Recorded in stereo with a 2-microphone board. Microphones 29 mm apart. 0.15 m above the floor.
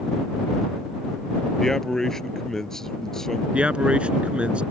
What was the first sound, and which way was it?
A man speaking, 20° left (ahead or behind).